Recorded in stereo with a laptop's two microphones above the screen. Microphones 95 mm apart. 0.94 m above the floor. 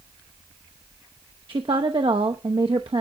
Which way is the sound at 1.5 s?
65° right (ahead or behind).